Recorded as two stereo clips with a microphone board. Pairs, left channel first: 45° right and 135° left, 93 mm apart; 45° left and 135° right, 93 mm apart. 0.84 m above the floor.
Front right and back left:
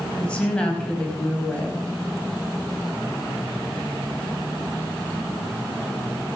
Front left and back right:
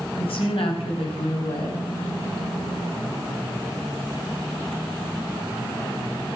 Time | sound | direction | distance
0.2 | a woman speaking | 35° left | 4.5 m